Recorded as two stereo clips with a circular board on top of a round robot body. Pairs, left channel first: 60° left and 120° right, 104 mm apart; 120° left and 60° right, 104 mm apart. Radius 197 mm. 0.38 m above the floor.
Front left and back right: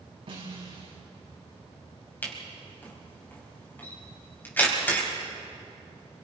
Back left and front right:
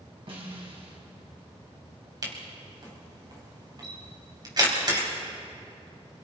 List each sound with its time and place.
0.3 s a snare drum: 90° right, 5.5 m
2.2 s a camera shutter: 15° right, 4.5 m